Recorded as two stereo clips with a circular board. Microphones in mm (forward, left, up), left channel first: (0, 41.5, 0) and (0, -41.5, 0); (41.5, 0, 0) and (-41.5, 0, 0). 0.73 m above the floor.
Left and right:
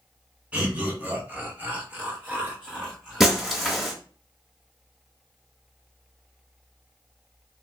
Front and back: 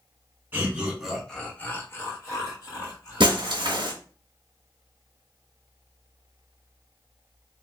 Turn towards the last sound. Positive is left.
turn(degrees=-175)